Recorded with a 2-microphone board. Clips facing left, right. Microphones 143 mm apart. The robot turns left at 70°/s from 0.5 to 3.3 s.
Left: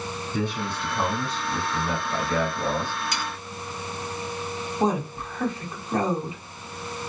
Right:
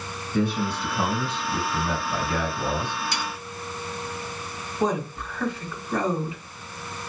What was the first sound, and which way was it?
A man speaking, 20° left (ahead or behind).